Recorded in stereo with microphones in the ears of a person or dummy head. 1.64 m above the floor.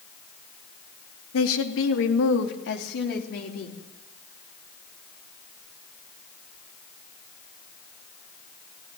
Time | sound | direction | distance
1.3 | a woman speaking | 75° left (ahead or behind) | 2 m